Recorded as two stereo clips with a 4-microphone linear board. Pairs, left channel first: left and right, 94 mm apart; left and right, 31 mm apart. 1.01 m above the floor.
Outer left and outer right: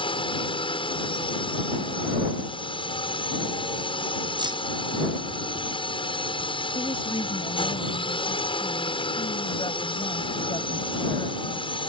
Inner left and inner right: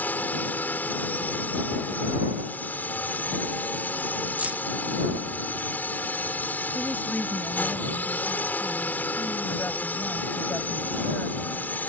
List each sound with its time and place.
0.0 s a drone: 65° left (ahead or behind)
4.4 s keys jangling: 55° right (ahead or behind)
6.8 s a woman speaking: 70° left (ahead or behind)